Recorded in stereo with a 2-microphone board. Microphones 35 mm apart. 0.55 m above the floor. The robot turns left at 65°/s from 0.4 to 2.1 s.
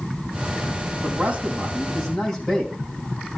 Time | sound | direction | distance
1.0 | a man speaking | 120° right | 4 m